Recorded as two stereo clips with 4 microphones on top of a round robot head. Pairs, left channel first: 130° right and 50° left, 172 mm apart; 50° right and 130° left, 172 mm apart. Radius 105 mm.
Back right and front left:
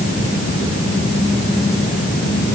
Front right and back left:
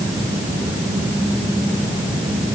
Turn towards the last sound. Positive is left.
No sound to turn to.